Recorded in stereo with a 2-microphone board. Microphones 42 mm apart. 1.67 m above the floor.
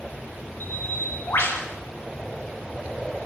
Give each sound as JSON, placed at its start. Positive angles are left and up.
{"t": 0.6, "sound": "a bird", "side_deg": 75, "distance_m": 5.5}